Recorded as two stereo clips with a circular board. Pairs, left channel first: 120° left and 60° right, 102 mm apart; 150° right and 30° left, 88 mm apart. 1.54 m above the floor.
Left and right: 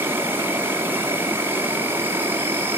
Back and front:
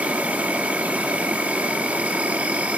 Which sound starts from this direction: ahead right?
An insect, at 0.0 s.